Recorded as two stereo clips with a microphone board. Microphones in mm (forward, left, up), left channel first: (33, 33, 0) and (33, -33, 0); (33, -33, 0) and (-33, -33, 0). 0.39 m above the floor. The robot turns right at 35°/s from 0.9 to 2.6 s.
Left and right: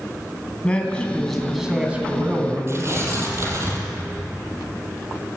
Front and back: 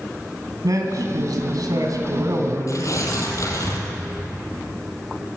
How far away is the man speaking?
About 3 m.